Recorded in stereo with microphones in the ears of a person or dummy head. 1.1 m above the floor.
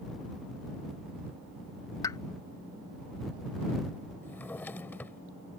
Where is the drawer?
10° left (ahead or behind).